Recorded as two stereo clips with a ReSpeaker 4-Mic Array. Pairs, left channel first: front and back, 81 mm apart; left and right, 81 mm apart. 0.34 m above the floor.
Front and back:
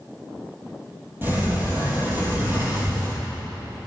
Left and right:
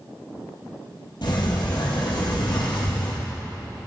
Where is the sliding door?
115° left, 2.5 m.